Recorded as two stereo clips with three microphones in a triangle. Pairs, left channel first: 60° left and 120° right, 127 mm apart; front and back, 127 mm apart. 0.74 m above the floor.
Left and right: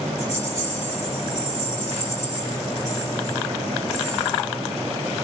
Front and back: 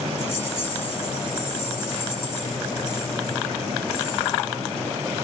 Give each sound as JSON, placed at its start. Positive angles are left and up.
{"t": 0.2, "sound": "a rattle", "azimuth_deg": 65, "distance_m": 2.0}